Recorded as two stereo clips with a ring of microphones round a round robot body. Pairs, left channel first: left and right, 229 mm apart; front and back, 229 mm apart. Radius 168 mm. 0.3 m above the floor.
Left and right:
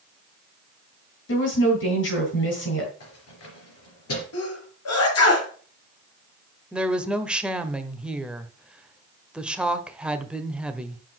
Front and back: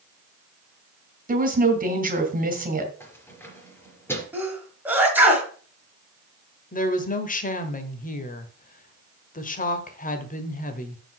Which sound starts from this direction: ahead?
A woman speaking, at 6.7 s.